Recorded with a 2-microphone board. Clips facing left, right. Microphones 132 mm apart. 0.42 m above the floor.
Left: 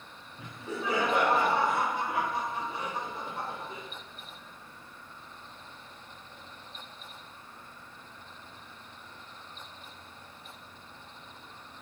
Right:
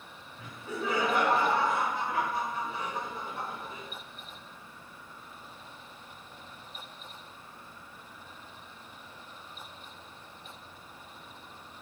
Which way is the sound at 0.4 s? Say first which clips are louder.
Even; 20° left (ahead or behind).